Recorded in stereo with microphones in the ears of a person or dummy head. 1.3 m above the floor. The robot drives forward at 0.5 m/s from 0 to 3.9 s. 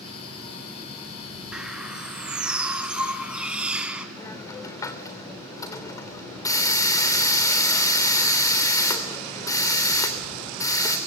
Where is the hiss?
25° left (ahead or behind), 3 m.